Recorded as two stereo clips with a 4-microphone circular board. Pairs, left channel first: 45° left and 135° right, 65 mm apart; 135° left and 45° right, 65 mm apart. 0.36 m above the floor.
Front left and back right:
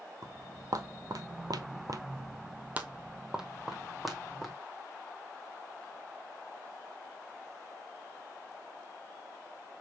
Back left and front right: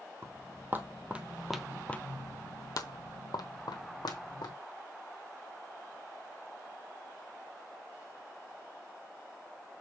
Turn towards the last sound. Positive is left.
turn(degrees=130)